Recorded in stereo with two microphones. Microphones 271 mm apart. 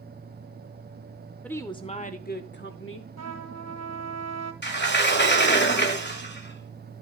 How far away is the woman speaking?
About 0.9 m.